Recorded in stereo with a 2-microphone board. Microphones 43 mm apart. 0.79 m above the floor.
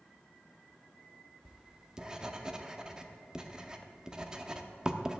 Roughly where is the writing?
Centre.